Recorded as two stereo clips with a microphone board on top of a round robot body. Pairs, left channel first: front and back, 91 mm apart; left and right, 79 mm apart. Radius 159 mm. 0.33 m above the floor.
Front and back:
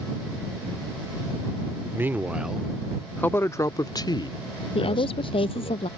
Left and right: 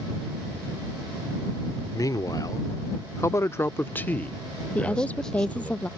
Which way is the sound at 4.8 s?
15° left.